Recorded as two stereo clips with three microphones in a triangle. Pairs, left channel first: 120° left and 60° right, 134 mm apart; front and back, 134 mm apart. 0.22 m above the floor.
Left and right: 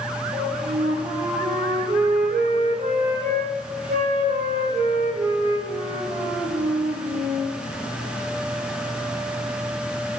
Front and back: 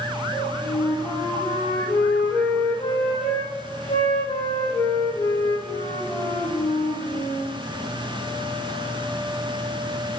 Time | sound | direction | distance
0.3 | a flute | 50° right | 8.5 m